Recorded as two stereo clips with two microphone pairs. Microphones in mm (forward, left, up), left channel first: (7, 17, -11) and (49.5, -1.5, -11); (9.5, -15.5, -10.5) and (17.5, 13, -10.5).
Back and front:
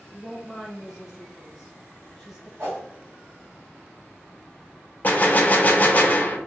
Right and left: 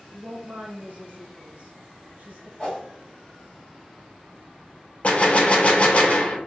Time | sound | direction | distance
0.1 | a woman speaking | 55° left | 1.0 m
2.6 | a whoosh | 50° right | 1.4 m
5.0 | a gunshot | 150° right | 0.5 m